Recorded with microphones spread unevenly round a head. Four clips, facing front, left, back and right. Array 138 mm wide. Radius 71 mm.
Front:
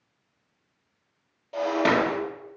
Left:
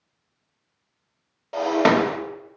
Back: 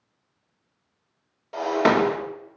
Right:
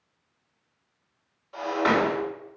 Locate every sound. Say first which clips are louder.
1.5 s breaking glass: left 5 dB, back 2 dB; 110° left, 2.0 m